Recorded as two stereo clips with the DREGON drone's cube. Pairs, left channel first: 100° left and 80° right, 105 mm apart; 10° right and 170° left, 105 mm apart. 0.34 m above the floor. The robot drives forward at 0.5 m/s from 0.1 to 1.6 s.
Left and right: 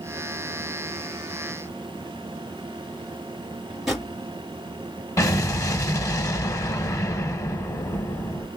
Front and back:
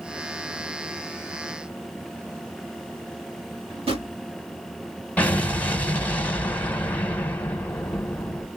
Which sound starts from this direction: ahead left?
An explosion, at 5.2 s.